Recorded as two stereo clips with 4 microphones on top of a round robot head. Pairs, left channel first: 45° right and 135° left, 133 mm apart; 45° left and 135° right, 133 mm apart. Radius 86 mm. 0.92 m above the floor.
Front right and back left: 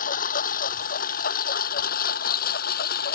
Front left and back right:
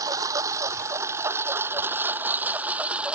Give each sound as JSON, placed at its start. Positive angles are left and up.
{"t": 0.0, "sound": "a lawn mower", "azimuth_deg": -65}